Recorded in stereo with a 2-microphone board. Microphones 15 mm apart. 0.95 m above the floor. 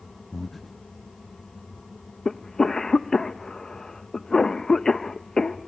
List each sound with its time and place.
0.3 s breathing: 20° left (ahead or behind), 0.6 m
2.2 s a cough: 25° left (ahead or behind), 0.6 m